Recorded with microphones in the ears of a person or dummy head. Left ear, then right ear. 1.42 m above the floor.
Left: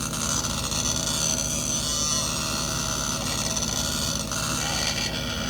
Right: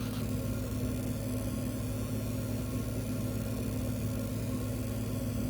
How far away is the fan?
About 1.6 m.